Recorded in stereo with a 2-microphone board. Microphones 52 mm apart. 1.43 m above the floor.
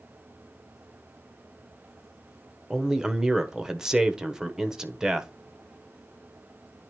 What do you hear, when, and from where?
2.7 s a man speaking: 10° right (ahead or behind), 1.0 m